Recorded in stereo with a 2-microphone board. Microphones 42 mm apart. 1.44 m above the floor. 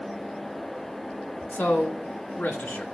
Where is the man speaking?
55° left (ahead or behind), 1.2 m.